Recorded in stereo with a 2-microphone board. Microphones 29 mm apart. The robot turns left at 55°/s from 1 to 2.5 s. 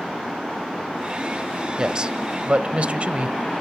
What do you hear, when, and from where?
1.8 s a man speaking: 30° right, 1.3 m; by 3.4 s 70° right, 1.3 m